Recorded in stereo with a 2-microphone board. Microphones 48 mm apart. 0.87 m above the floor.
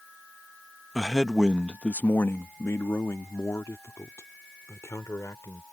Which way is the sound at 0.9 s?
10° right (ahead or behind).